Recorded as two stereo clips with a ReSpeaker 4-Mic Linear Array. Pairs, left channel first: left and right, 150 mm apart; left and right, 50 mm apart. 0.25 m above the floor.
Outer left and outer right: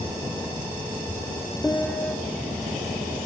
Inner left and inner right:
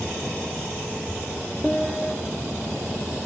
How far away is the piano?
About 2 m.